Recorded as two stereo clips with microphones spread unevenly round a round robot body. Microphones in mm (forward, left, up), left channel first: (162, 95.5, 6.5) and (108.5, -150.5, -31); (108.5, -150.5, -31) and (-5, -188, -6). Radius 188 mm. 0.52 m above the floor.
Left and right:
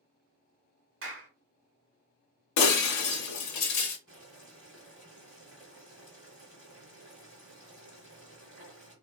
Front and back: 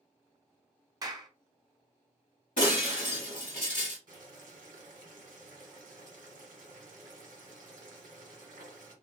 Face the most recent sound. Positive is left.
turn(degrees=180)